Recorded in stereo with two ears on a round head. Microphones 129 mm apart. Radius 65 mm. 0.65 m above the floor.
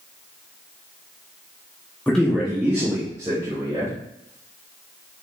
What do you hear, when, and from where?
2.1 s a man speaking: 10° left (ahead or behind), 0.7 m; by 3.9 s 25° right (ahead or behind), 1.7 m